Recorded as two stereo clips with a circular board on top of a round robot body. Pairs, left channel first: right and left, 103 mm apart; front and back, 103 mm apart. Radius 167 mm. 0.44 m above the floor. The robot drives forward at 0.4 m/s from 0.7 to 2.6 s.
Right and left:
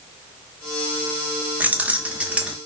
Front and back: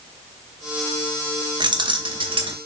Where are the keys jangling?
160° left, 1.0 m; by 2.6 s 165° left, 1.3 m.